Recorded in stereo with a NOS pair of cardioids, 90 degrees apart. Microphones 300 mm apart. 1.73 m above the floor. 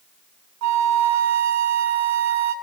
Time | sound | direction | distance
0.6 | a flute | 70° right | 3 m